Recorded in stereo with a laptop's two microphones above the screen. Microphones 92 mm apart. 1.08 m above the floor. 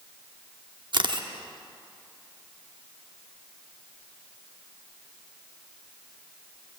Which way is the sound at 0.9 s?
55° right (ahead or behind).